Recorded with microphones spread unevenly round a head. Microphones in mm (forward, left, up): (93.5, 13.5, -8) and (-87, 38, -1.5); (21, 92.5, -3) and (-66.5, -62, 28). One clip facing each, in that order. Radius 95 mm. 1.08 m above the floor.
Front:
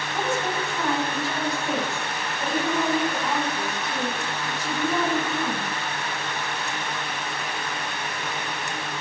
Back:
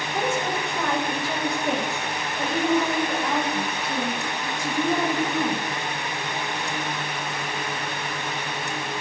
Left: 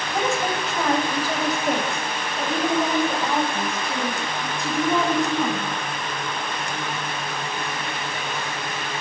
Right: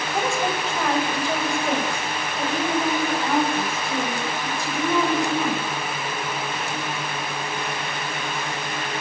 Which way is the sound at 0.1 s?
150° left.